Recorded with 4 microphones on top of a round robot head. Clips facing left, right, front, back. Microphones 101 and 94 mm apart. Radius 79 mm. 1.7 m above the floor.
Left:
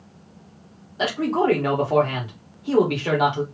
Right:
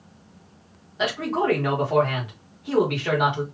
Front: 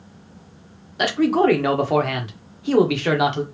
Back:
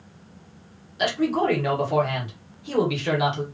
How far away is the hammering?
No hammering in this recording.